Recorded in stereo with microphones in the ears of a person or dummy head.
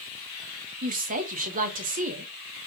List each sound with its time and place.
0.8 s a woman speaking: 45° right (ahead or behind), 0.7 m